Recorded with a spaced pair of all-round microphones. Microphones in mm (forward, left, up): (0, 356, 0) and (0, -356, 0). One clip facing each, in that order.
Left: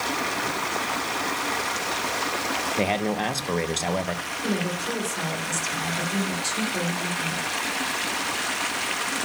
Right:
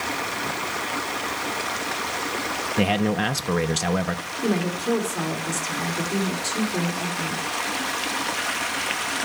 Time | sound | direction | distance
2.8 | a man speaking | 45° right (ahead or behind) | 0.8 m
4.4 | a woman speaking | 75° right (ahead or behind) | 3 m